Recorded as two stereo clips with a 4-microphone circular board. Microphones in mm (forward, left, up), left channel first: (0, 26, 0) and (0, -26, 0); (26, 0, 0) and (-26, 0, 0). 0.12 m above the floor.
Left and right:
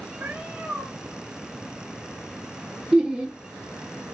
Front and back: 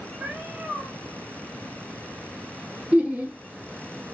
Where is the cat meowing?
130° right, 1.3 m.